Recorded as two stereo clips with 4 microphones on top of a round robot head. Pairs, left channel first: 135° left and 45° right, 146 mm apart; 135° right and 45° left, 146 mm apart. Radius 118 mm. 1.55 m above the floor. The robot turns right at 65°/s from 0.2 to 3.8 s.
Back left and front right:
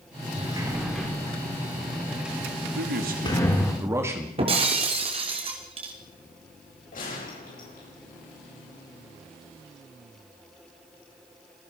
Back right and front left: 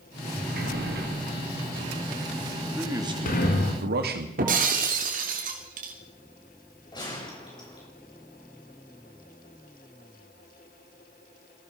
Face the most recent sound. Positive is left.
turn(degrees=165)